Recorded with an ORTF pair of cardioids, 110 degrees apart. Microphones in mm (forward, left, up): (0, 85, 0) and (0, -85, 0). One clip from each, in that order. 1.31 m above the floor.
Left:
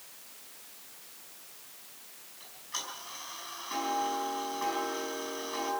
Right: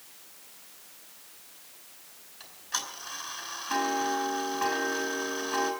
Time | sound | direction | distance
2.4 | ticking | 65° right | 5 m